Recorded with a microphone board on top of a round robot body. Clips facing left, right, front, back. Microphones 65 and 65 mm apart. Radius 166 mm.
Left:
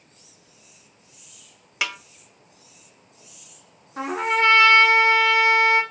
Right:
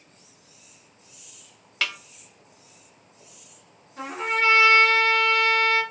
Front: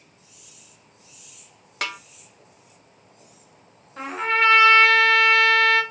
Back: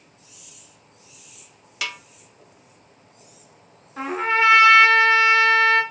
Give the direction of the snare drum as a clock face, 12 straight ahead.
11 o'clock.